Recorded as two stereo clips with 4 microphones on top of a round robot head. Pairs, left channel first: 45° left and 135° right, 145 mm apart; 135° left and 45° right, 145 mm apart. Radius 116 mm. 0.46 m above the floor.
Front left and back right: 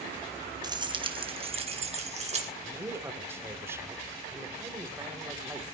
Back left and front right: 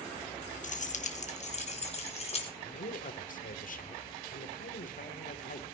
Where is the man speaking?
150° left, 3 m.